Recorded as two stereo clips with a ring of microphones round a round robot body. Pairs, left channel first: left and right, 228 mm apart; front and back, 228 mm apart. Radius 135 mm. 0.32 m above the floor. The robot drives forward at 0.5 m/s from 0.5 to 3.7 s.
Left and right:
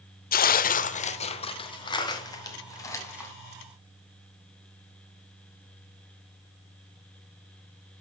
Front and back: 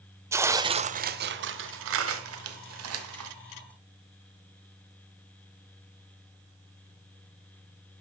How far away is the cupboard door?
No cupboard door in this recording.